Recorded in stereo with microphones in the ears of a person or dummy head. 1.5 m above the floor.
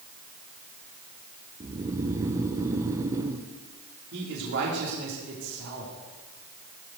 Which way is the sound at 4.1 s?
70° right (ahead or behind).